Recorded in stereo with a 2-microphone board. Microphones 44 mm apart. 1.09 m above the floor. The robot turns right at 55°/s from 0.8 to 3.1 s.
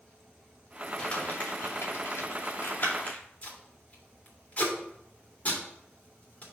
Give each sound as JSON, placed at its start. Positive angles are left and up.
{"t": 1.0, "sound": "crumpling", "side_deg": 25, "distance_m": 2.0}
{"t": 3.4, "sound": "tape being pulled", "side_deg": 35, "distance_m": 2.0}